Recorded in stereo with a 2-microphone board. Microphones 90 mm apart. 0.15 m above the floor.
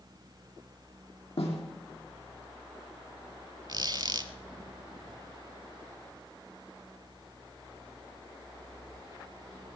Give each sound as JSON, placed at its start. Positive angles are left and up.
{"t": 1.4, "sound": "a snare drum", "side_deg": 75, "distance_m": 3.5}
{"t": 3.7, "sound": "a squeak", "side_deg": -50, "distance_m": 0.7}